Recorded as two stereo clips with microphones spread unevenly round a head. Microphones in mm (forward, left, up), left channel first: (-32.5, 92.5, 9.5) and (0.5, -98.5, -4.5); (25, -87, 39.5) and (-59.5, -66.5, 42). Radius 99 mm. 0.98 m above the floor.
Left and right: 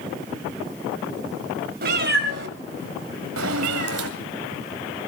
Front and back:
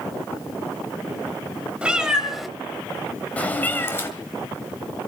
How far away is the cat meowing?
About 2 m.